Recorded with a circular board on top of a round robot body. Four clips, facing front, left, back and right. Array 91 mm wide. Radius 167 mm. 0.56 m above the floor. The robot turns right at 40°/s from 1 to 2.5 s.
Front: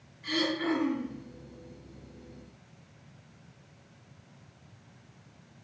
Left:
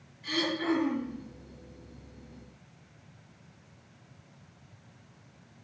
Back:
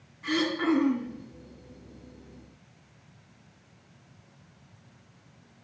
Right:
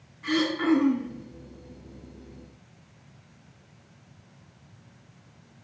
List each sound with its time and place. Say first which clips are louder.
0.2 s throat clearing: right 6 dB, back 4 dB; 140° right, 3 m; by 1.1 s 130° right, 3 m